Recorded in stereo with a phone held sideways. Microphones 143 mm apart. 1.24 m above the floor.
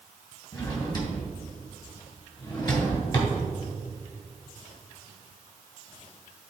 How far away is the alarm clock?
No alarm clock in this recording.